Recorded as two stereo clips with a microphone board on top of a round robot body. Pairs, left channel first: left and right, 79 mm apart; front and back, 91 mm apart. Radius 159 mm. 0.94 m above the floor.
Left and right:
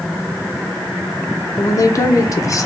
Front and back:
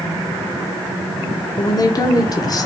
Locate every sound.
1.6 s a woman speaking: 45° left, 0.7 m